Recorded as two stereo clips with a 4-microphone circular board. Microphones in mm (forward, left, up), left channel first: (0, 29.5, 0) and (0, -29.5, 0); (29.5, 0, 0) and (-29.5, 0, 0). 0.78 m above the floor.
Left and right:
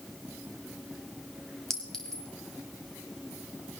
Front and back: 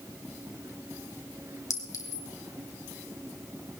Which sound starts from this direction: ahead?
A clink, at 1.7 s.